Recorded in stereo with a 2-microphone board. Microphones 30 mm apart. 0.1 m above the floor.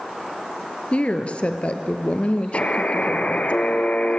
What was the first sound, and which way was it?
A woman speaking, 45° left (ahead or behind).